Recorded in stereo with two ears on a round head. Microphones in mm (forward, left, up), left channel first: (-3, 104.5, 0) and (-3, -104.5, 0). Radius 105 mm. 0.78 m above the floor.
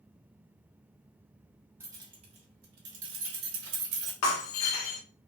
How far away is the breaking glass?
About 0.7 m.